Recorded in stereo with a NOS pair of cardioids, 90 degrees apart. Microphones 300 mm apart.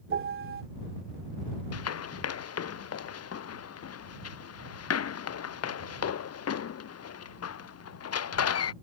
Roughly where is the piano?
Ahead right.